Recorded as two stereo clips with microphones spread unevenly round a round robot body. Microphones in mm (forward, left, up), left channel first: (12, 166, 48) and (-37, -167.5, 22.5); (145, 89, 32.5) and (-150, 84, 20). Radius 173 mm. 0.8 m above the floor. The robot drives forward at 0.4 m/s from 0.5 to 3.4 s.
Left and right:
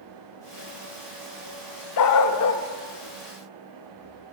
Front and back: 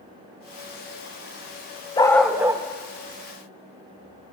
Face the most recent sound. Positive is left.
turn(degrees=140)